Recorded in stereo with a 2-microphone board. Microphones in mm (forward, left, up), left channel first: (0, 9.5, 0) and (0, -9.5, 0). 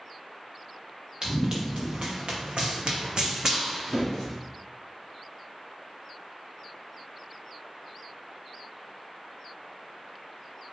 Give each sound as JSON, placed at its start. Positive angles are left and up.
{"t": 1.2, "sound": "running footsteps", "side_deg": -45, "distance_m": 1.1}